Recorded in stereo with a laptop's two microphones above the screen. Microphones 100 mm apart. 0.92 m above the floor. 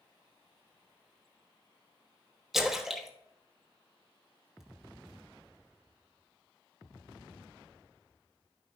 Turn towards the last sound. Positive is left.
turn(degrees=-5)  # may be behind; listen again after turning